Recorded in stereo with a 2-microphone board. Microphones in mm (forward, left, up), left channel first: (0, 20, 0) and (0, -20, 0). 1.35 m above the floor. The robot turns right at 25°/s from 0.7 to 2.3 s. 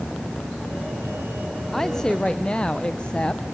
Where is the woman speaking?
10° left (ahead or behind), 0.6 m; by 3.5 s 25° left (ahead or behind), 0.6 m.